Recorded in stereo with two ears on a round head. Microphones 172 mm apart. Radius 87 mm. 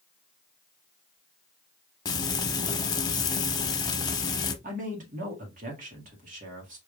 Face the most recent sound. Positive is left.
turn(degrees=-45)  # may be behind; listen again after turning